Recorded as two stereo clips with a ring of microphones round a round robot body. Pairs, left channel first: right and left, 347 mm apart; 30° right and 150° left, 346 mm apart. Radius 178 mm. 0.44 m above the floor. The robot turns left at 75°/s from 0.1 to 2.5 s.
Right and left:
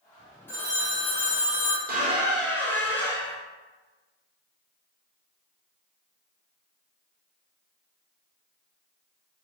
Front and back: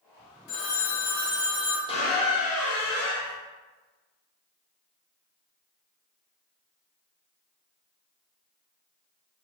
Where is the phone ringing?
5° right, 0.8 m; by 1.8 s 105° right, 0.8 m.